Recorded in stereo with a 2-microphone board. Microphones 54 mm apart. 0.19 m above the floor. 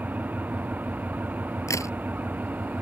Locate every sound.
0.0 s an engine running: 30° right (ahead or behind)
1.7 s a crack: 70° left (ahead or behind)